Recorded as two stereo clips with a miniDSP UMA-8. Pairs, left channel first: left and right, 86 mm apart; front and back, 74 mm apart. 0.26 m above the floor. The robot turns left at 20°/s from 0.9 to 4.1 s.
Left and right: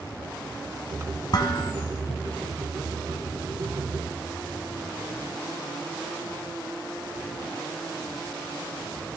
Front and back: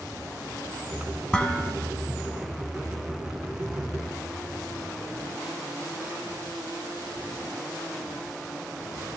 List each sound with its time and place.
1.3 s dishes clattering: 75° left, 1.6 m; by 1.7 s 65° left, 1.6 m